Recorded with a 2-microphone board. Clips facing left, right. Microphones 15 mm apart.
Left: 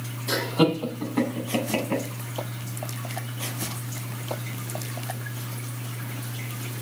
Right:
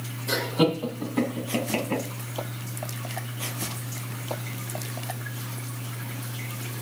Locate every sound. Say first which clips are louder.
0.3 s laughter: left 1 dB; 10° left (ahead or behind), 1.4 m; by 2.0 s 5° left (ahead or behind), 1.5 m